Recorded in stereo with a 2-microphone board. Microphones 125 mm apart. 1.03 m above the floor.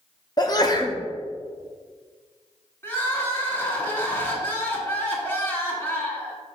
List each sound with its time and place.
0.4 s a sneeze: 35° left (ahead or behind), 1.0 m
2.8 s crying: 20° left (ahead or behind), 1.6 m